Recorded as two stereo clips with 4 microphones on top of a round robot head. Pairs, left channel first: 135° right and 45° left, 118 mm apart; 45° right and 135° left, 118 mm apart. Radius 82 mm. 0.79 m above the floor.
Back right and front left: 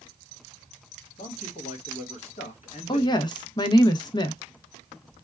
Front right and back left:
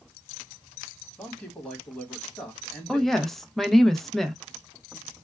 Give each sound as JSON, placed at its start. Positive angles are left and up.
{"t": 1.2, "sound": "a man speaking", "azimuth_deg": -125, "distance_m": 1.6}
{"t": 2.9, "sound": "a woman speaking", "azimuth_deg": -130, "distance_m": 0.7}